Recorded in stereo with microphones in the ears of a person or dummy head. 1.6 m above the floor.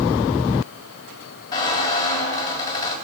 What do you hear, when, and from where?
1.5 s a squeak: 25° left (ahead or behind), 3 m